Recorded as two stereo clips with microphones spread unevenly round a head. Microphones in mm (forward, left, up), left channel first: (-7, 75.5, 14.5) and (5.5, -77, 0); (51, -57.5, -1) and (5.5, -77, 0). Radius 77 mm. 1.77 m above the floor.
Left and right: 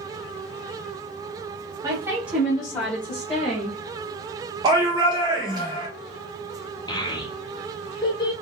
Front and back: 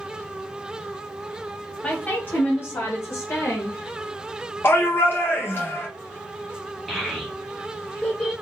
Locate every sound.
1.8 s a woman speaking: 20° right, 0.8 m; by 3.8 s 25° left, 1.5 m
4.6 s a shout: 20° right, 0.7 m
6.9 s a child speaking: 115° left, 0.6 m